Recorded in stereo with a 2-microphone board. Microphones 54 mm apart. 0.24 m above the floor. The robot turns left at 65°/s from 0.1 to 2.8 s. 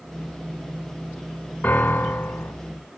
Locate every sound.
1.6 s a piano: 130° left, 1.7 m; by 2.5 s 70° left, 1.7 m